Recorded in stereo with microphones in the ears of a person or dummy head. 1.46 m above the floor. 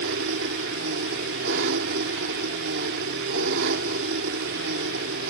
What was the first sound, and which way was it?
An engine running, 70° right (ahead or behind).